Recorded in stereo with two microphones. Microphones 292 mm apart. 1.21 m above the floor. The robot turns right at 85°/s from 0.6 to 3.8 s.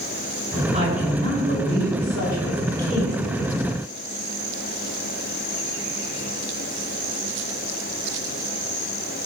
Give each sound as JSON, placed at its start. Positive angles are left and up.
{"t": 0.7, "sound": "a woman speaking", "azimuth_deg": -25, "distance_m": 6.0}